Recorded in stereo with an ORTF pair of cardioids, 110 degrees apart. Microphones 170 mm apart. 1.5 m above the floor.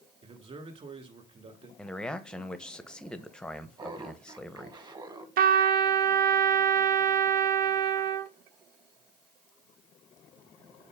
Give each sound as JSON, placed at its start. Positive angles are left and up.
{"t": 0.2, "sound": "a man speaking", "azimuth_deg": -35, "distance_m": 2.5}
{"t": 1.8, "sound": "a man speaking", "azimuth_deg": 5, "distance_m": 1.0}
{"t": 3.8, "sound": "laughter", "azimuth_deg": -25, "distance_m": 1.7}
{"t": 5.4, "sound": "a trumpet", "azimuth_deg": -60, "distance_m": 0.8}